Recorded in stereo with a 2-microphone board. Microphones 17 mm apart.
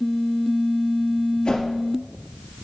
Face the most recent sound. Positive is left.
turn(degrees=70)  # may be behind; listen again after turning